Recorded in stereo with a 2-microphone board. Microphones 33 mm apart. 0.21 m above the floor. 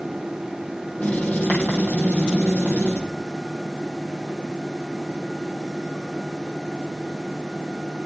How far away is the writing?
About 8.5 m.